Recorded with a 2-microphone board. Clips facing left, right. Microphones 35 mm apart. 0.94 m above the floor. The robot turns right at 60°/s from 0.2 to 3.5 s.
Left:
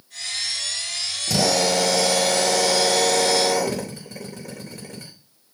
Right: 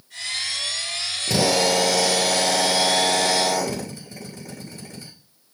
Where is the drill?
35° right, 3.5 m; by 5.1 s 100° left, 3.5 m.